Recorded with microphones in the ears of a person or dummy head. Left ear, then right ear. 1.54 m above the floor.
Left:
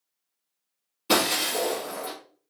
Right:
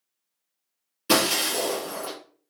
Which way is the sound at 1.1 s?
25° right (ahead or behind).